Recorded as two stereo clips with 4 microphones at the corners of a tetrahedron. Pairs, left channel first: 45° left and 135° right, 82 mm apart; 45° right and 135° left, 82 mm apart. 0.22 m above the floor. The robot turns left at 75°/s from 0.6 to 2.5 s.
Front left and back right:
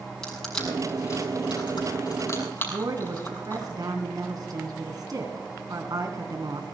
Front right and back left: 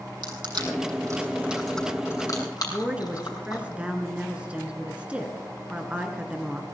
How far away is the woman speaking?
About 2.5 m.